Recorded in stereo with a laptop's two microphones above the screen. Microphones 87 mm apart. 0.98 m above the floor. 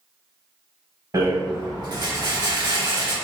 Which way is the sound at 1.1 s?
50° right (ahead or behind).